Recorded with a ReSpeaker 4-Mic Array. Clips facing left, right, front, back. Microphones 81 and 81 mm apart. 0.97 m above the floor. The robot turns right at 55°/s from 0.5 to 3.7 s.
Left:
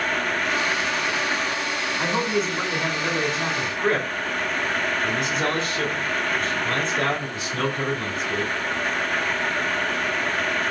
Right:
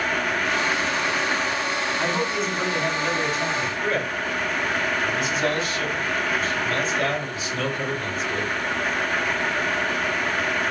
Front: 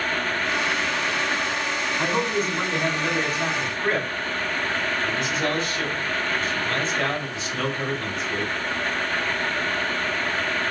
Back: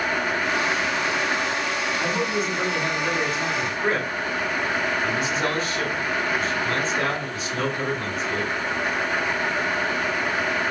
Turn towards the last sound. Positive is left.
turn(degrees=105)